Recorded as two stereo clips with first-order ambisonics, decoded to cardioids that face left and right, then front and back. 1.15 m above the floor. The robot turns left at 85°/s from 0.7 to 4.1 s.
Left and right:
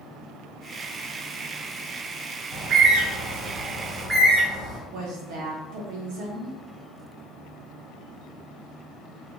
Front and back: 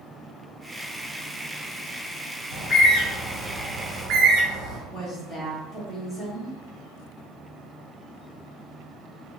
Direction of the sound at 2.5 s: 20° right.